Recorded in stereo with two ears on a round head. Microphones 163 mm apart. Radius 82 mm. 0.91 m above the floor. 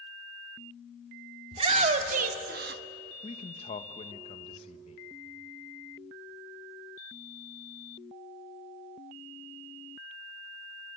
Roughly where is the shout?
Right.